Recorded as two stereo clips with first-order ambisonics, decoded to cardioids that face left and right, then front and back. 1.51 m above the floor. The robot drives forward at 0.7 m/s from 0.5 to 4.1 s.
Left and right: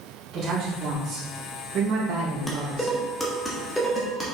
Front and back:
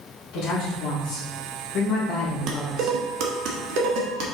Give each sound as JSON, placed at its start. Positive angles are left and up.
{"t": 0.3, "sound": "a woman speaking", "azimuth_deg": -30, "distance_m": 2.5}
{"t": 2.5, "sound": "dishes clattering", "azimuth_deg": 165, "distance_m": 0.9}